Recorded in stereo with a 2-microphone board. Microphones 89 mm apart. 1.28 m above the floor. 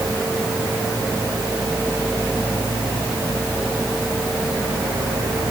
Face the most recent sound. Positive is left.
No sound to turn to.